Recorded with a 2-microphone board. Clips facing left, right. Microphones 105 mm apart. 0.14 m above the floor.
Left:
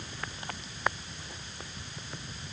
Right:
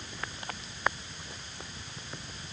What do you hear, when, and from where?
Only background noise.